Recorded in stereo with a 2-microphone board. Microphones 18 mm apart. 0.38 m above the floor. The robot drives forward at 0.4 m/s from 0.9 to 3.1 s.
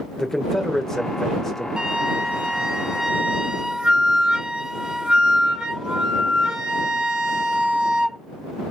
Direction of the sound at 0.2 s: 20° left (ahead or behind).